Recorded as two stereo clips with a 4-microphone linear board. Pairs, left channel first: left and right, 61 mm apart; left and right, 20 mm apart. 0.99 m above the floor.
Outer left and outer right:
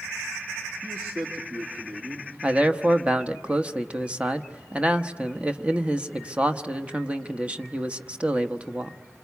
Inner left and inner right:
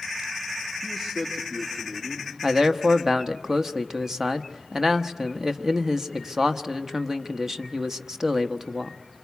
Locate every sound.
0.8 s a man speaking: 50° right (ahead or behind), 2 m
2.4 s a man speaking: 20° right (ahead or behind), 1.0 m